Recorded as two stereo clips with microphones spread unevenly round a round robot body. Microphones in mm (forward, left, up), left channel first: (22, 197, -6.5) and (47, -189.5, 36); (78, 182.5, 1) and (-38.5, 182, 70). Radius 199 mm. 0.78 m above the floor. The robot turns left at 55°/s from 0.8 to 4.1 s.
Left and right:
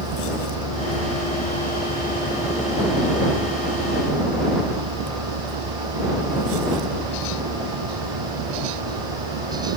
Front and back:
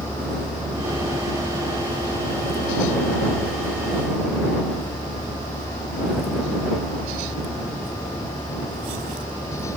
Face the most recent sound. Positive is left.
turn(degrees=-70)